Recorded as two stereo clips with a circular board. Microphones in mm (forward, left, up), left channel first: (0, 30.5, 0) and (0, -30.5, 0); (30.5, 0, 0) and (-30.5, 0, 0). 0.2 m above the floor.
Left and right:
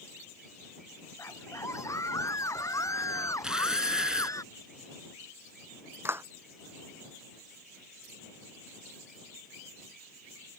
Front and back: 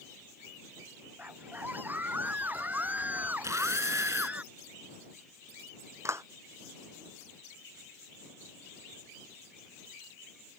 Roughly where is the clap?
Behind right.